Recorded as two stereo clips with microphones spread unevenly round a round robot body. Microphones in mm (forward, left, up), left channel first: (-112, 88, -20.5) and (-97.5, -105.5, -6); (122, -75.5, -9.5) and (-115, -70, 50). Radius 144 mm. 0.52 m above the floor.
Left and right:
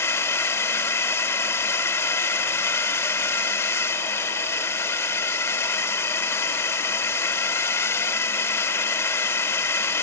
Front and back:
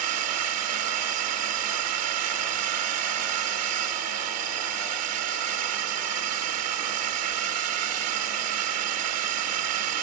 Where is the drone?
170° left.